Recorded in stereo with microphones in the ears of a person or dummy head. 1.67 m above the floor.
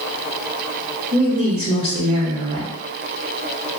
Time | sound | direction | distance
1.1 | a woman speaking | 45° right (ahead or behind) | 1.0 m